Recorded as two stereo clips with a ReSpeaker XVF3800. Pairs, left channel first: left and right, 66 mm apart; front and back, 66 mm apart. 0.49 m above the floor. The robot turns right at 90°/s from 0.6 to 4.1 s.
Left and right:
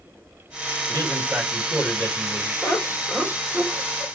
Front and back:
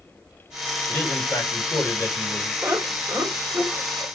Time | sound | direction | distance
0.9 | a man speaking | 75° right | 1.8 m
2.6 | laughter | 125° left | 1.5 m